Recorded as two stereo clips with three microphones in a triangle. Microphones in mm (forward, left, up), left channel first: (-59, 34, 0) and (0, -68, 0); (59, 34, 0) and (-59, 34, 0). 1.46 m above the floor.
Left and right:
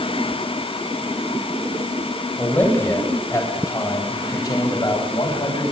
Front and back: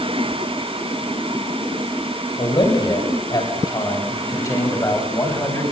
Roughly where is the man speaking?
Ahead left.